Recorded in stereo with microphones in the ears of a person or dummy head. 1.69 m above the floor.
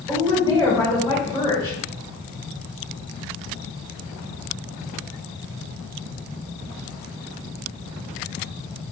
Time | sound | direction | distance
0.1 | a woman speaking | 15° right (ahead or behind) | 1.8 m